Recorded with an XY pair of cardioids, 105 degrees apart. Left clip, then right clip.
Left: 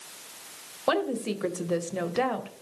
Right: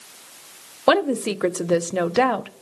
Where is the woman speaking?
55° right, 0.6 m.